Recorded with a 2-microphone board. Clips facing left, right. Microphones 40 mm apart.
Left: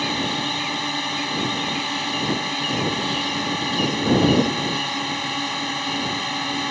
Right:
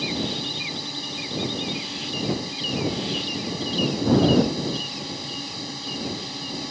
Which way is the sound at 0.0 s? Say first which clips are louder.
Left 4 dB; 55° left (ahead or behind).